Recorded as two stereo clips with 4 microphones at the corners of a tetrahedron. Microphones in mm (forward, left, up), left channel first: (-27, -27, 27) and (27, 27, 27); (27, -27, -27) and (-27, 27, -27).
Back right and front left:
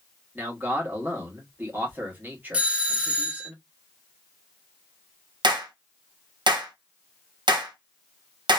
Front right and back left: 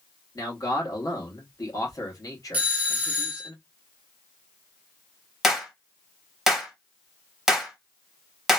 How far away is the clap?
About 0.9 m.